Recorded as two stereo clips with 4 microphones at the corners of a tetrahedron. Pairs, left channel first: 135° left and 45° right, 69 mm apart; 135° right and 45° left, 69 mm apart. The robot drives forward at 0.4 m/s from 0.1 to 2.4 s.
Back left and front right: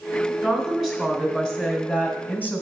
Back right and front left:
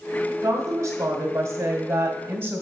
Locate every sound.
0.4 s a woman speaking: 40° left, 1.5 m; by 2.6 s 90° left, 1.3 m